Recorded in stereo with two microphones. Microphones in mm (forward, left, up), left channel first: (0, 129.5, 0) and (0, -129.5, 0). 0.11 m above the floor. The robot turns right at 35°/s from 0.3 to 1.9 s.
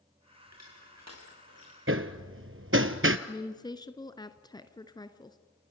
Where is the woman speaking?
15° left (ahead or behind), 1.3 m.